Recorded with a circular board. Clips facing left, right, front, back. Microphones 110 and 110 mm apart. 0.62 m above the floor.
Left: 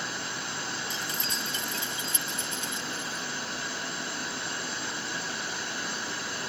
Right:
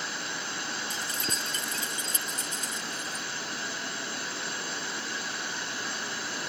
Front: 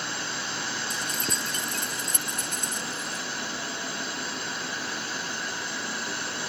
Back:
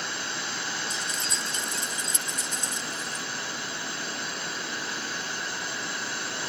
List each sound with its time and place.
0.9 s keys jangling: 40° right; by 3.2 s 35° right